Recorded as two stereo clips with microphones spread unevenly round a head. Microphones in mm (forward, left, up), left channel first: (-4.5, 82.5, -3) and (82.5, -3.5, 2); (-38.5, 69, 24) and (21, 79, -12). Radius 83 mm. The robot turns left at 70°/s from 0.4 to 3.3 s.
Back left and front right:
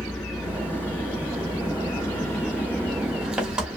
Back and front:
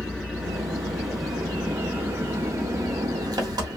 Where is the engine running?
130° right, 1.1 m; by 3.8 s 25° left, 1.1 m.